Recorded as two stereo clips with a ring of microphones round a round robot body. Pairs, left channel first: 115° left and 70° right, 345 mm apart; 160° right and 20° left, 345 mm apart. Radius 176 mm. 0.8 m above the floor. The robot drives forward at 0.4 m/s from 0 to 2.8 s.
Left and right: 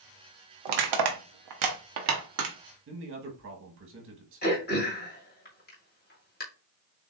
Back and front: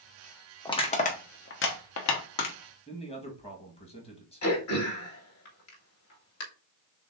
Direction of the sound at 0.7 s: 80° right.